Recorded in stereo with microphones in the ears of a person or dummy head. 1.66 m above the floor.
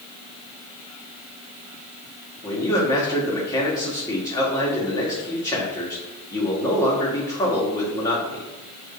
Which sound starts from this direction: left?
A man speaking, at 2.4 s.